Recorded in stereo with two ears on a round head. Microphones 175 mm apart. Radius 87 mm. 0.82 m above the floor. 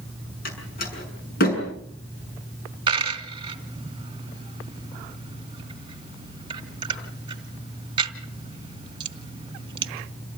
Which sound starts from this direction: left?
A door slam, at 0.5 s.